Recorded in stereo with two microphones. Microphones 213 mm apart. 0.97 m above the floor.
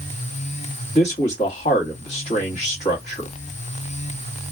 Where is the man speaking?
30° left (ahead or behind), 1.4 m.